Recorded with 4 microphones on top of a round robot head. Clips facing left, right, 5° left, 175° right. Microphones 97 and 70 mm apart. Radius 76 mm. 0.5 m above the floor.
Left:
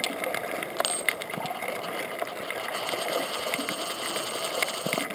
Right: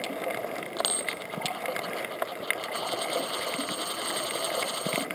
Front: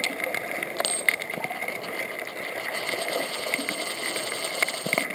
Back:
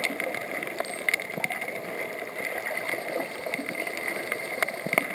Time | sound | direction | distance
0.8 | a dropped coin | 15° right | ?